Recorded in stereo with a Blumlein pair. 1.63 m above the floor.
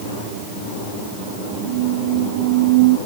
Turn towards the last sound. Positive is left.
turn(degrees=-50)